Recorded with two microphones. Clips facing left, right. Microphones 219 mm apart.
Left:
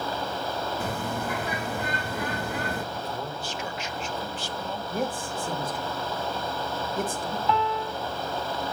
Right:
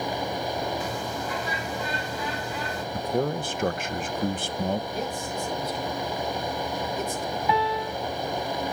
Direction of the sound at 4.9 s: 50° left (ahead or behind).